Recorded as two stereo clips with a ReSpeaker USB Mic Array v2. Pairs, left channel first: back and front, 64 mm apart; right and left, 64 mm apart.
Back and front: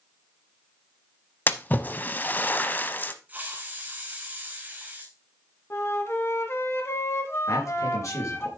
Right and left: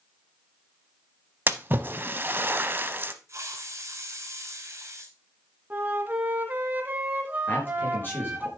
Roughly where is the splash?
Behind left.